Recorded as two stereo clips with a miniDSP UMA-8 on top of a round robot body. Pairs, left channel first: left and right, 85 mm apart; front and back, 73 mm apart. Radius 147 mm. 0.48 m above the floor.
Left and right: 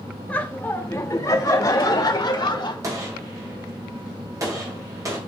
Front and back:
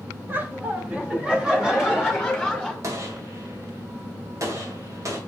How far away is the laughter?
About 1.3 m.